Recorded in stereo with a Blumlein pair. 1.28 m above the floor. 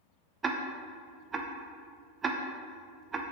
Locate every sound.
0.4 s ticking: 20° right, 0.8 m